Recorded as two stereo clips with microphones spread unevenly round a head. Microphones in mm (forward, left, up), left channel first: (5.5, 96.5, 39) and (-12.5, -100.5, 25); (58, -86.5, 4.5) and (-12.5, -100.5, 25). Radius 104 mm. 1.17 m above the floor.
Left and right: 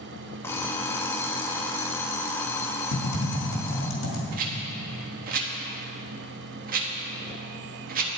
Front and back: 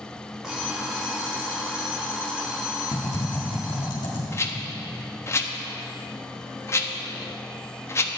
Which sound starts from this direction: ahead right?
A rattle, at 4.3 s.